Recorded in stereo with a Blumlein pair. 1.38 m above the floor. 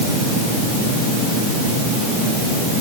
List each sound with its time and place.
Only background noise.